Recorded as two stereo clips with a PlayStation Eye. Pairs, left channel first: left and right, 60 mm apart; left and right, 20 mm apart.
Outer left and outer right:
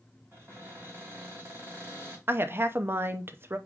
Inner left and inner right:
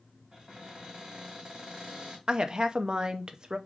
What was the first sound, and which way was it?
A cupboard door, 40° right (ahead or behind).